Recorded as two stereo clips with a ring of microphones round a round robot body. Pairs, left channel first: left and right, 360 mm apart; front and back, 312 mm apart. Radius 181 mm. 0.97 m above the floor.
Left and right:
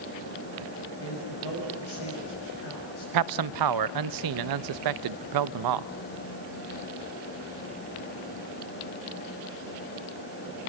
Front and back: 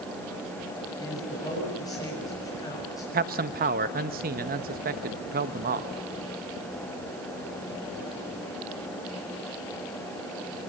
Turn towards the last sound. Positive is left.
turn(degrees=-115)